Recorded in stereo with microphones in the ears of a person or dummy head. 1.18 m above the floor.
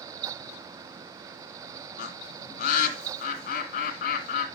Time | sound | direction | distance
2.0 | a bird | 50° left (ahead or behind) | 2.0 m